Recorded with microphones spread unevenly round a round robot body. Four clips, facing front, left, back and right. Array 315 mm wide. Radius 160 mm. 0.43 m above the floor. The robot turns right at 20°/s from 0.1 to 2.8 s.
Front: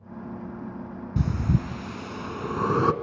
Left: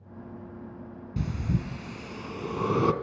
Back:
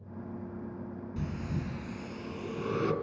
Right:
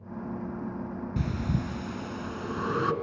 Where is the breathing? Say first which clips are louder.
Left 1 dB, front 11 dB; straight ahead, 1.6 m; by 2.9 s 35° left, 1.6 m.